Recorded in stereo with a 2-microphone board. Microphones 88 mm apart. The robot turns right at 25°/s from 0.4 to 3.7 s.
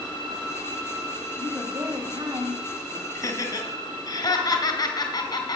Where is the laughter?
40° left (ahead or behind), 2.5 m; by 5.6 s 50° left (ahead or behind), 2.5 m.